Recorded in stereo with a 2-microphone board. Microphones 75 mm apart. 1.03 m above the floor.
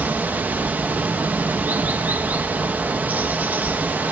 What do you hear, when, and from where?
0.0 s running water: 25° right (ahead or behind), 0.9 m